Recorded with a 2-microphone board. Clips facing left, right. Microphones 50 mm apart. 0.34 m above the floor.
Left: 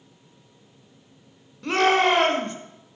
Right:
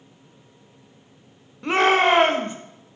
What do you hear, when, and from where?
1.6 s a shout: 20° right (ahead or behind), 0.9 m